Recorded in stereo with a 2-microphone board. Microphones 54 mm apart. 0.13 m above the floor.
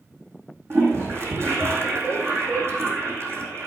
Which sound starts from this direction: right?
A toilet flushing, at 0.7 s.